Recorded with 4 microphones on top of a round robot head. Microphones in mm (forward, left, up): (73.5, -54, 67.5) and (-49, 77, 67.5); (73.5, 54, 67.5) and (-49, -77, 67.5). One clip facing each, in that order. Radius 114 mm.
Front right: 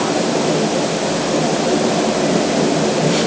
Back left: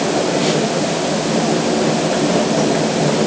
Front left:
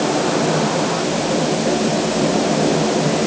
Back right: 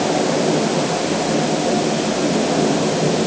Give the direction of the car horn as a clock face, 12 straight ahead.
I don't hear a car horn.